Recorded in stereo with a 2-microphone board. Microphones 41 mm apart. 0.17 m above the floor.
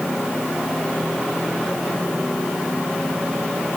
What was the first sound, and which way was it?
Only background noise.